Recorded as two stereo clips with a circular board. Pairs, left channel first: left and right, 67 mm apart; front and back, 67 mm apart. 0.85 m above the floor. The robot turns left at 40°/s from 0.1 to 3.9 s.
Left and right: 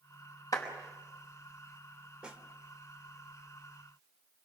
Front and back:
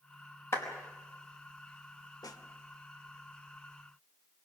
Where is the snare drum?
10° right, 1.7 m; by 2.4 s 20° right, 1.7 m.